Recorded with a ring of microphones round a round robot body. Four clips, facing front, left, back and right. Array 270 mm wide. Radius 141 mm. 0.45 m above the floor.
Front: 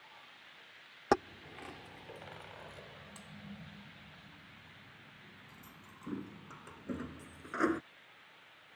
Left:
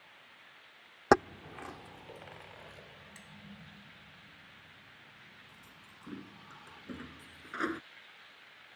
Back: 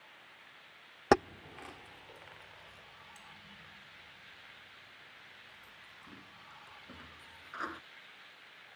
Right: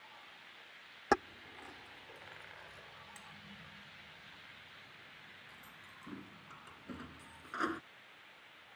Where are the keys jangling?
115° left; by 7.8 s 15° left.